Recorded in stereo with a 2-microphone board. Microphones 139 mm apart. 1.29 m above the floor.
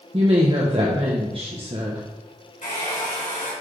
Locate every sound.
0.1 s a woman speaking: 40° right (ahead or behind), 1.0 m
2.6 s a hair dryer: 65° left (ahead or behind), 3.5 m